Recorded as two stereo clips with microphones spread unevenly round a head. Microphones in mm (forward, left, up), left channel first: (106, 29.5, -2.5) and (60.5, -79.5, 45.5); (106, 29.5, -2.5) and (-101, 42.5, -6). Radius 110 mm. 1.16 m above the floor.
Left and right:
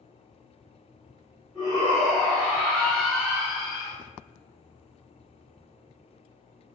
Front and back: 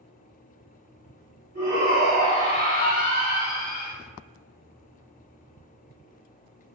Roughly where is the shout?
Behind left.